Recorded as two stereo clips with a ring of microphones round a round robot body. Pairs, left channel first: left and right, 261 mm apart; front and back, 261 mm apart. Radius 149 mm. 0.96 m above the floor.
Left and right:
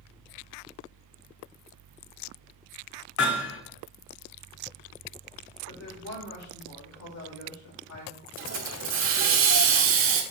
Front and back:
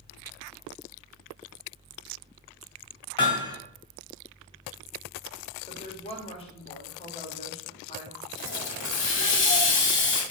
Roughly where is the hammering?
Left.